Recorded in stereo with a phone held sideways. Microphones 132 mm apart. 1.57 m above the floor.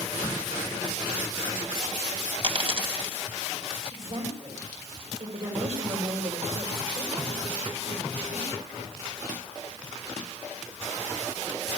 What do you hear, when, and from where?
0.2 s a crack: 25° right (ahead or behind), 7.5 m
2.4 s a dropped coin: 45° right (ahead or behind), 3 m
3.9 s a woman speaking: 50° right (ahead or behind), 6.5 m